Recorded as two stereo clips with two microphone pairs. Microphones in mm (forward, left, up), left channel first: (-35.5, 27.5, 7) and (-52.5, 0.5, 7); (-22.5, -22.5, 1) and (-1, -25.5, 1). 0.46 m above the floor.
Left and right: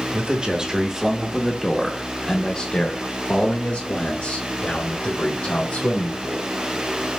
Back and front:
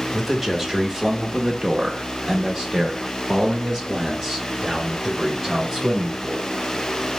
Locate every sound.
0.1 s a man speaking: 85° right, 1.3 m; by 6.5 s 60° left, 2.5 m